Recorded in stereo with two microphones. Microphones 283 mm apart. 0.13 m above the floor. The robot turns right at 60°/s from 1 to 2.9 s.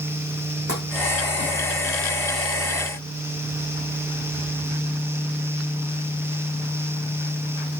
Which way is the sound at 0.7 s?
55° right (ahead or behind).